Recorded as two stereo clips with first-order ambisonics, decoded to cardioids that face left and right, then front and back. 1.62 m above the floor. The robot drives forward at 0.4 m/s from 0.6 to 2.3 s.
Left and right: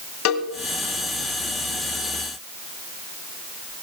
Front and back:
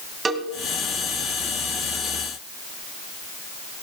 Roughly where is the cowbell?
Left.